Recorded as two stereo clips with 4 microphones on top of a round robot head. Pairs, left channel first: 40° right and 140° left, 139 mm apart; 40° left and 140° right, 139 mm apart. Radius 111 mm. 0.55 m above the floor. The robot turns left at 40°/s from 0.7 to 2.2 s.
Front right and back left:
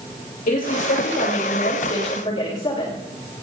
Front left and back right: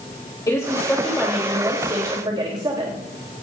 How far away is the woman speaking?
About 3 m.